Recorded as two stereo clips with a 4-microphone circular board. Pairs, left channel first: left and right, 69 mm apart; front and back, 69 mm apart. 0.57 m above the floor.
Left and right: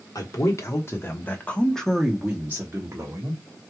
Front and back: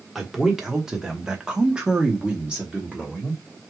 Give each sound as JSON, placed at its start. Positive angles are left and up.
{"t": 0.1, "sound": "a man speaking", "azimuth_deg": 100, "distance_m": 1.3}